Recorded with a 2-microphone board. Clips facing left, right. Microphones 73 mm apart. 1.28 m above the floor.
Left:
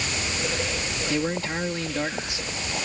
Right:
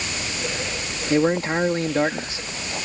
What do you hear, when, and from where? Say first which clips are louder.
1.1 s a man speaking: right 8 dB; 40° right (ahead or behind)